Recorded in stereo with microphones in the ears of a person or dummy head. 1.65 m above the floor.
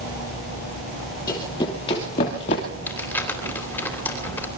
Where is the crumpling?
15° left (ahead or behind), 3 m.